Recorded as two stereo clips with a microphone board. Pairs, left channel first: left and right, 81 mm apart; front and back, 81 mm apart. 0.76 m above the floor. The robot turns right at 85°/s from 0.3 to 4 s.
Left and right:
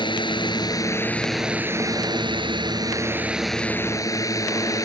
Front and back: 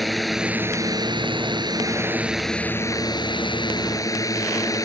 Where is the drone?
90° left; by 4.8 s 45° left.